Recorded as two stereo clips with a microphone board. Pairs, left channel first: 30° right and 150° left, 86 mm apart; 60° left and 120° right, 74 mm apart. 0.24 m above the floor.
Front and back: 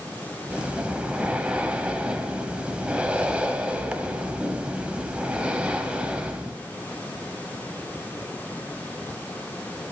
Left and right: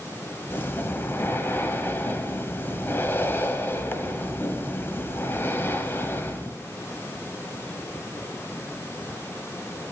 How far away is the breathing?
About 0.9 m.